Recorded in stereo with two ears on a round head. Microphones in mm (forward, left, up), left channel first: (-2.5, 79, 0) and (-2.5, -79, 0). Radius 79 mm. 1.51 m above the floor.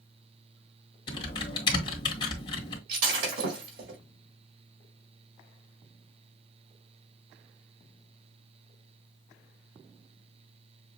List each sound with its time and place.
1.1 s typing on a keyboard: 25° left (ahead or behind), 2 m
2.9 s breaking glass: 55° right (ahead or behind), 4.5 m